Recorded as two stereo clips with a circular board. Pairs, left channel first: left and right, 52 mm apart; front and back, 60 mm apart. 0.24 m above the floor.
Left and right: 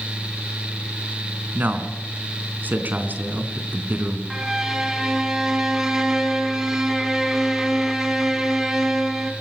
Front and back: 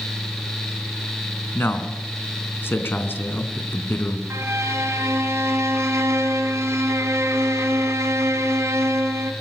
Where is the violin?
165° right, 2 m.